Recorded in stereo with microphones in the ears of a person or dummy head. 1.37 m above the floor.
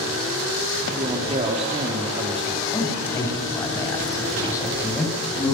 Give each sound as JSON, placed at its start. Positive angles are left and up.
{"t": 0.9, "sound": "a man speaking", "side_deg": -30, "distance_m": 2.5}
{"t": 2.7, "sound": "a man speaking", "side_deg": 20, "distance_m": 8.5}